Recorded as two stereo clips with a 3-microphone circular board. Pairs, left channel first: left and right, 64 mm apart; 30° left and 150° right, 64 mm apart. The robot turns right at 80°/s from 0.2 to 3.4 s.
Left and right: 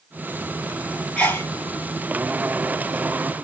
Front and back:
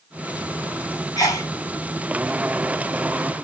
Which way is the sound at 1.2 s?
20° left.